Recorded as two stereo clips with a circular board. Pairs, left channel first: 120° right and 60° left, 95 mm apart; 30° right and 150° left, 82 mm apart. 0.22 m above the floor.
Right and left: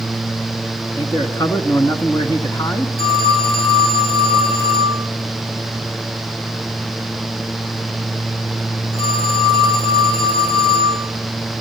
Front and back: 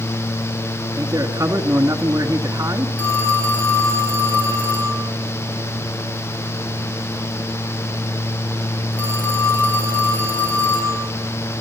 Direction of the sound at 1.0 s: 175° right.